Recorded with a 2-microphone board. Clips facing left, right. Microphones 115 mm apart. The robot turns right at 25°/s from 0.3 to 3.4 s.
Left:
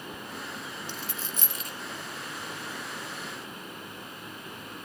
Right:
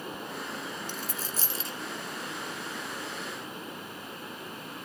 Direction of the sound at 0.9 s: 45° right (ahead or behind).